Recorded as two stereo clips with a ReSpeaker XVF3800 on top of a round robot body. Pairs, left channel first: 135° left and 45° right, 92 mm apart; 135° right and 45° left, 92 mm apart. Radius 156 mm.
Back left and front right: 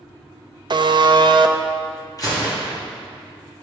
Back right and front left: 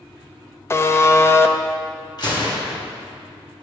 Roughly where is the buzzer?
Right.